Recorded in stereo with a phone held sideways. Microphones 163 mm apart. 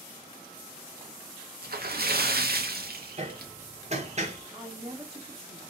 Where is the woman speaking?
25° right (ahead or behind), 1.0 m.